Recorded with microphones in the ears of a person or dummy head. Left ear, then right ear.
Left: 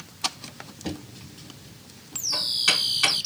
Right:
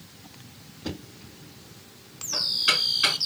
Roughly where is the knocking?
Left.